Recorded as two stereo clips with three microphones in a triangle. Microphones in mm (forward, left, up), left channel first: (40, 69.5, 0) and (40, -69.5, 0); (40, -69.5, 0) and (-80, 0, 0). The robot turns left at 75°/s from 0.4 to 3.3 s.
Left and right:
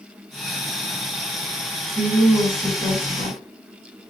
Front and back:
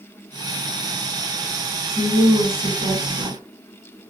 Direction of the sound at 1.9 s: 145° right.